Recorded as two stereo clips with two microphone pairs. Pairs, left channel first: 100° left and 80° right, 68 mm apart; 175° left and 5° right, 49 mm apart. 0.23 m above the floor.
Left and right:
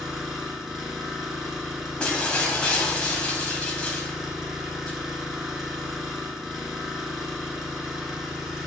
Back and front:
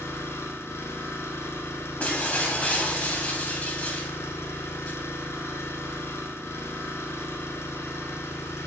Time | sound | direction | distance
0.0 | an engine running | 165° right | 0.8 m
2.0 | breaking glass | 155° left | 0.8 m